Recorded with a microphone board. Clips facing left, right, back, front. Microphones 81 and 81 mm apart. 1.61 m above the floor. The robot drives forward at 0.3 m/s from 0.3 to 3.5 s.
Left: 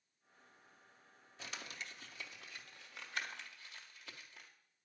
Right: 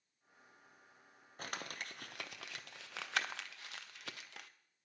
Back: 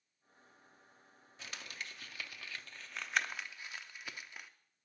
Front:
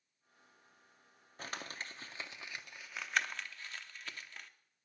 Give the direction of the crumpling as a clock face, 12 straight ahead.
2 o'clock.